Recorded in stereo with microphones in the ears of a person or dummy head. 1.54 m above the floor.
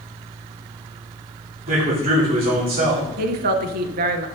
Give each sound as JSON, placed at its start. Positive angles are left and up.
{"t": 1.7, "sound": "a man speaking", "side_deg": -40, "distance_m": 3.5}
{"t": 3.2, "sound": "a woman speaking", "side_deg": -55, "distance_m": 0.8}